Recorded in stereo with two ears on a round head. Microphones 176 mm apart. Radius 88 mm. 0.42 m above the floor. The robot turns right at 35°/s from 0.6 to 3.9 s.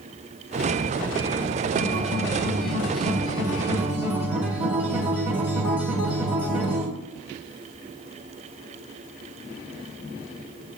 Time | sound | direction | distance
1.8 | a guitar | 90° right | 1.7 m